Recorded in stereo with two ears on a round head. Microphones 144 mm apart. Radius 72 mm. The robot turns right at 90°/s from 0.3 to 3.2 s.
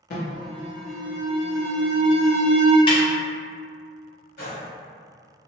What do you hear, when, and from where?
0.1 s an alarm: 120° left, 0.7 m; by 2.8 s 15° right, 0.7 m
2.9 s a snare drum: 35° left (ahead or behind), 0.8 m; by 3.0 s 25° left (ahead or behind), 0.8 m
4.4 s a gunshot: 60° left (ahead or behind), 1.1 m